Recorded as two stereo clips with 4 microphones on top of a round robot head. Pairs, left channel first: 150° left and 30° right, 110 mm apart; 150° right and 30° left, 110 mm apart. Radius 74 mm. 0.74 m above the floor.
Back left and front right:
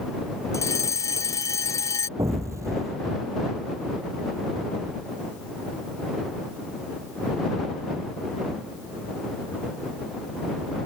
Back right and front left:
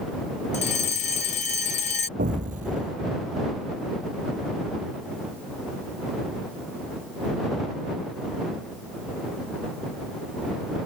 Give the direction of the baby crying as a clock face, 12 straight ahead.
I don't hear a baby crying.